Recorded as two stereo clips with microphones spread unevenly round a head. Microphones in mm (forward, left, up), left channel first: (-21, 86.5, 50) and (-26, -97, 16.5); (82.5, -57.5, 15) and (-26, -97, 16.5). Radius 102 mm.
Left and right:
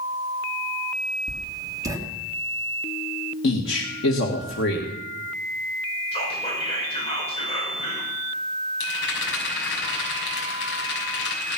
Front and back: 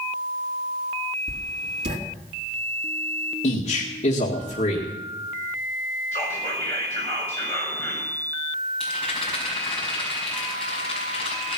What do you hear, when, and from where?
1.3 s writing: 165° right, 3 m
3.4 s a man speaking: 60° left, 2.0 m
6.1 s whispering: 145° left, 5 m
8.8 s a rattle: 105° left, 5.5 m